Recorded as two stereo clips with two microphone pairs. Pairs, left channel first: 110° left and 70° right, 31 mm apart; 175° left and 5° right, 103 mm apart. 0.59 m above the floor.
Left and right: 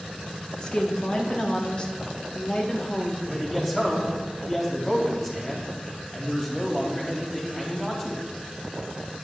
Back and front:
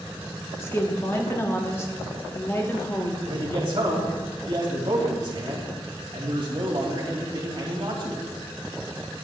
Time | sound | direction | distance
0.6 | a woman speaking | 135° left | 0.9 m
3.3 | a man speaking | 35° left | 2.5 m